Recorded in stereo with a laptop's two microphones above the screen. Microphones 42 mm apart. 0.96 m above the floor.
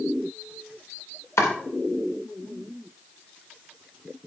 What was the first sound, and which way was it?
Chopping, 75° left (ahead or behind).